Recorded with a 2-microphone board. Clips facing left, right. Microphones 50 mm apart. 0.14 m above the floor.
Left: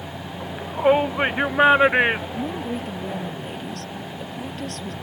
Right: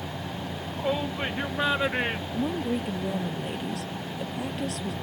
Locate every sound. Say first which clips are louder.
0.4 s a shout: left 11 dB; 45° left (ahead or behind); by 3.3 s 35° left (ahead or behind)
2.3 s a woman speaking: even; 5° right (ahead or behind)